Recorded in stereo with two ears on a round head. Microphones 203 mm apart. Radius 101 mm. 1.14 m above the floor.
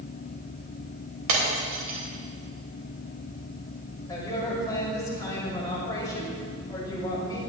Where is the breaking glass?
85° right, 3.5 m.